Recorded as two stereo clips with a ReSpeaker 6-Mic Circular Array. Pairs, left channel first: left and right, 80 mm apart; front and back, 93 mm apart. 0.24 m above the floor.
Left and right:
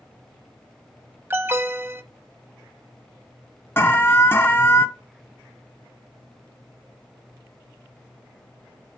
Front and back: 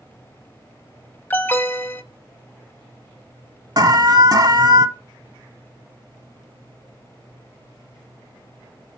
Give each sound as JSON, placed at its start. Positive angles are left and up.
{"t": 1.3, "sound": "an alarm", "azimuth_deg": -50, "distance_m": 0.8}
{"t": 3.8, "sound": "an alarm", "azimuth_deg": 145, "distance_m": 1.2}